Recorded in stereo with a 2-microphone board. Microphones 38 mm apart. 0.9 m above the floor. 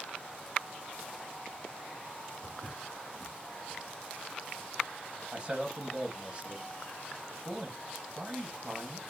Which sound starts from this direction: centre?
A man speaking, at 5.3 s.